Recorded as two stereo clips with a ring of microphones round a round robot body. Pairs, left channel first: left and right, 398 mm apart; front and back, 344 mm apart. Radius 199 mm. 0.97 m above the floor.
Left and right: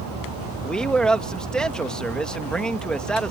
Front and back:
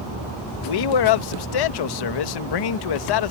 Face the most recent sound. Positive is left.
turn(degrees=0)